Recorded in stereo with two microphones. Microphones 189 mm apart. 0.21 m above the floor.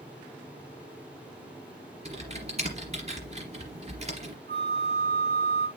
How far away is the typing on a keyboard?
About 3 m.